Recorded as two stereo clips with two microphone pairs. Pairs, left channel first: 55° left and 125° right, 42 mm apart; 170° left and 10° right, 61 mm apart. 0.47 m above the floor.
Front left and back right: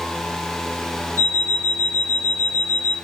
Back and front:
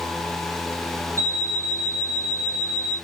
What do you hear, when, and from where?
1.2 s an alarm clock: 35° left, 1.6 m